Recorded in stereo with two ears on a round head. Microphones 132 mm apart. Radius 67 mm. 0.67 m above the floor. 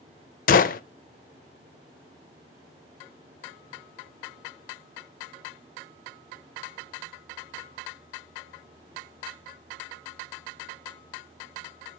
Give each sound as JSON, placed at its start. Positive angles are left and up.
{"t": 0.5, "sound": "a gunshot", "side_deg": 60, "distance_m": 0.6}